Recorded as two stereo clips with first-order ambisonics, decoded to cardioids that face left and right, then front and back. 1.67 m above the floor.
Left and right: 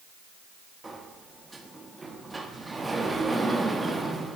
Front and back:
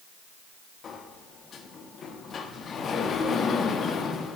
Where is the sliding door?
20° right, 1.2 m.